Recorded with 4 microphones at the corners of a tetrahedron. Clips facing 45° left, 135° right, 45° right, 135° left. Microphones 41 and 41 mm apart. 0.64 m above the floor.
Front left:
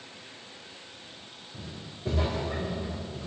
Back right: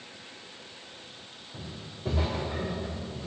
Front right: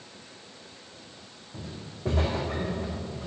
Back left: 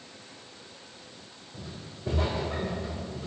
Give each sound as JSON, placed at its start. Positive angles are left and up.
{"t": 1.5, "sound": "footsteps", "azimuth_deg": -70, "distance_m": 2.5}